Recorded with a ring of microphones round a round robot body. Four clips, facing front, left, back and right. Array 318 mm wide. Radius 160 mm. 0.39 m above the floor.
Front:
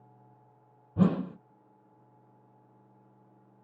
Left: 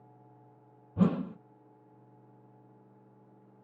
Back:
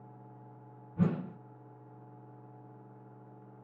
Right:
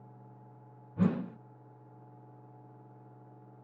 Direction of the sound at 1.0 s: 30° left.